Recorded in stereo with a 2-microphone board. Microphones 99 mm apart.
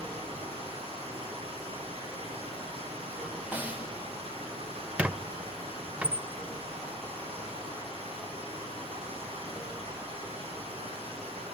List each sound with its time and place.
0.0 s running water: 75° right (ahead or behind), 6.5 m
3.5 s a snare drum: 15° right (ahead or behind), 1.8 m
5.0 s a squeak: 15° right (ahead or behind), 0.6 m